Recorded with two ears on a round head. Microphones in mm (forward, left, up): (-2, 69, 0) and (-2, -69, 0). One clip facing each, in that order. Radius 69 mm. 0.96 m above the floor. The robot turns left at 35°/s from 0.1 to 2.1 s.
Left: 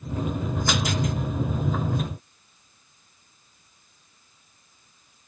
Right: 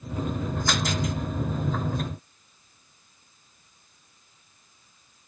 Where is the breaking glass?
I don't hear breaking glass.